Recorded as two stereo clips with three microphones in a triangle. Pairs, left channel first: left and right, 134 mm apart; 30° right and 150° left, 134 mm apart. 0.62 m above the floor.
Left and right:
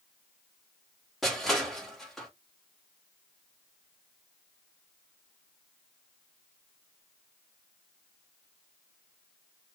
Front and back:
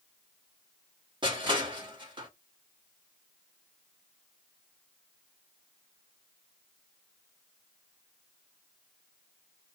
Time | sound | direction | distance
1.2 | crushing | straight behind | 1.3 m